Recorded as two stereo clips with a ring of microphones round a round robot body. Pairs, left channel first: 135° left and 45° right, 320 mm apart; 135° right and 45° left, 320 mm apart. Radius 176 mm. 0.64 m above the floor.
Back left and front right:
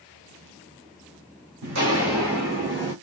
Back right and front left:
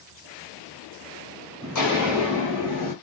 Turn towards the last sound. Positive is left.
turn(degrees=-105)